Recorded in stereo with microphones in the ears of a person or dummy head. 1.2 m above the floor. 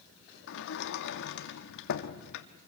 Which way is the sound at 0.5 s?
65° left (ahead or behind).